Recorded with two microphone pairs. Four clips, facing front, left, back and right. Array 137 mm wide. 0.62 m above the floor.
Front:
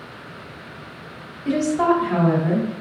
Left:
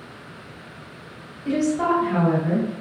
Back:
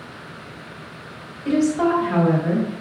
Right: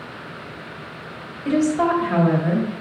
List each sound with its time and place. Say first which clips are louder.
1.4 s a woman speaking: right 2 dB, even; 95° right, 1.7 m